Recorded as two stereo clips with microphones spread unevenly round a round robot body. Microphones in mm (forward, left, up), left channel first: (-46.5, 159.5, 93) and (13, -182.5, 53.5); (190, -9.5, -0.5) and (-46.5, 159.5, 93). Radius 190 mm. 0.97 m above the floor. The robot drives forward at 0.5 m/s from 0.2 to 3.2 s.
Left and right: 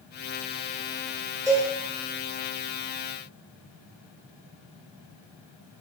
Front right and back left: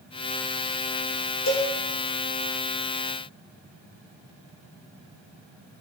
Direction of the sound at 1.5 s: Straight ahead.